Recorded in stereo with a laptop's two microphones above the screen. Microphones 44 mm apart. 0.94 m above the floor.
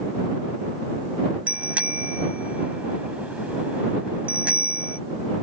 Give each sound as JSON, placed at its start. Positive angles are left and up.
{"t": 1.5, "sound": "a bicycle bell", "side_deg": -30}